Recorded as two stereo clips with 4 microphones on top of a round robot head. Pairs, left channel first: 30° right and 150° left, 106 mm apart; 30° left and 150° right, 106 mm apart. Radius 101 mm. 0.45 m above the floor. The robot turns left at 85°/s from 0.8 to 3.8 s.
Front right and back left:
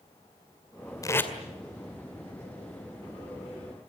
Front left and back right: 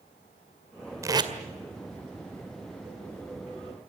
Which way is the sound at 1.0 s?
90° right.